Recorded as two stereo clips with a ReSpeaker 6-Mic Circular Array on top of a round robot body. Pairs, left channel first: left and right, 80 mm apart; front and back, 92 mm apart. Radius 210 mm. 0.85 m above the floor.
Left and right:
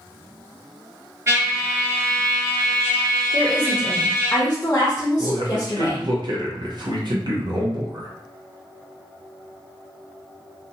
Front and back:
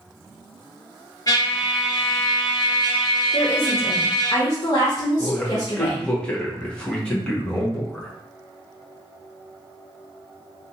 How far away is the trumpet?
About 1.7 m.